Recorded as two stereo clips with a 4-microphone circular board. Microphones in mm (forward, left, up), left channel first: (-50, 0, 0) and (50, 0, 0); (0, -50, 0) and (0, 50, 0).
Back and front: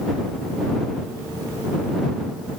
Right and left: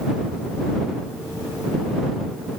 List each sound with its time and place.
Only background noise.